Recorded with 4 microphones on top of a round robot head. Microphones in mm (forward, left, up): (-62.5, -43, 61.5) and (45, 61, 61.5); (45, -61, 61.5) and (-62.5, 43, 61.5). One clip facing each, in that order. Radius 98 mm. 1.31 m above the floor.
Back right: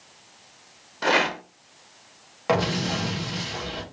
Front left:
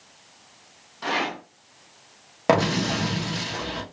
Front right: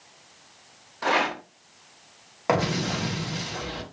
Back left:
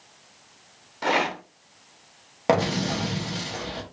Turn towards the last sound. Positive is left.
turn(degrees=80)